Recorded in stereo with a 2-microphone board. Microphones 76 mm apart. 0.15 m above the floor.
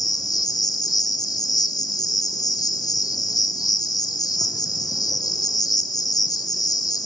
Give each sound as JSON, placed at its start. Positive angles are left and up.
{"t": 0.0, "sound": "an insect", "side_deg": 60, "distance_m": 1.3}